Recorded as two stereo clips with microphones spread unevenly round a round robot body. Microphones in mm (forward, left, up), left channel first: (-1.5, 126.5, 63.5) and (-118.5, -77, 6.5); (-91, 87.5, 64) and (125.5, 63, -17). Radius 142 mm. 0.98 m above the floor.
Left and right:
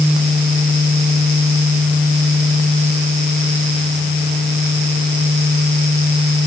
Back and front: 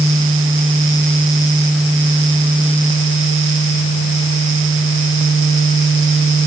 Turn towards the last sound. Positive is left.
No sound to turn to.